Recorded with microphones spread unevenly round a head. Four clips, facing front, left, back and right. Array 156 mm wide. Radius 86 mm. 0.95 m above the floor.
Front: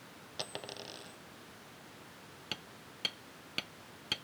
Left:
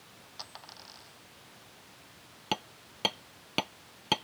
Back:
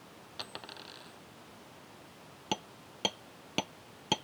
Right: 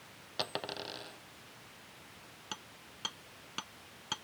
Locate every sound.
0.4 s a dropped coin: 75° right
2.5 s hammering: 135° left